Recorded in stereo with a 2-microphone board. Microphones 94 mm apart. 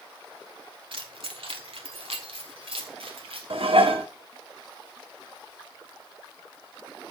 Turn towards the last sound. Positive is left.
turn(degrees=-70)  # may be behind; listen again after turning